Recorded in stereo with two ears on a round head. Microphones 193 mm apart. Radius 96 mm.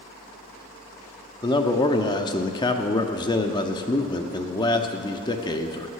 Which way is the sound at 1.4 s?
20° left (ahead or behind).